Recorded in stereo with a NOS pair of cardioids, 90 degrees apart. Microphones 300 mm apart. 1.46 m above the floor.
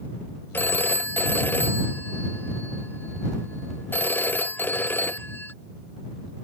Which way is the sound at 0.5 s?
5° left.